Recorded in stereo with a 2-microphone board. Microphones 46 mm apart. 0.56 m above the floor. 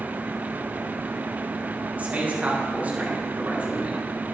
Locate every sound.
2.0 s a man speaking: 30° right (ahead or behind), 4.5 m